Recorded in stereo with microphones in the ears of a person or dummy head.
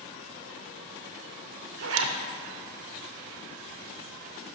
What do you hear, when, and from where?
1.8 s a zipper: 70° right (ahead or behind), 0.6 m